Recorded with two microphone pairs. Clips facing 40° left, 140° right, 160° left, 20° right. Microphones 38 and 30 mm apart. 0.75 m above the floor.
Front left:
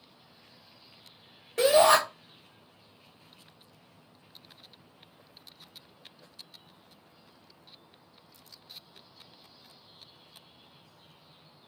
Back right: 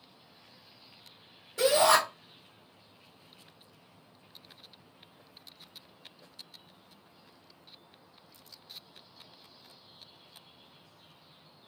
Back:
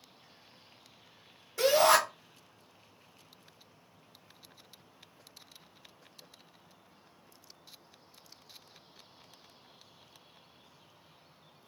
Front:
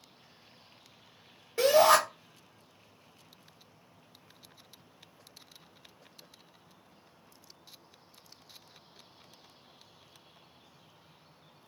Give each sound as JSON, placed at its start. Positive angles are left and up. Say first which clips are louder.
{"t": 1.6, "sound": "a shout", "louder": "front left 3 dB, front 2 dB", "azimuth_deg": 25, "distance_m": 1.4}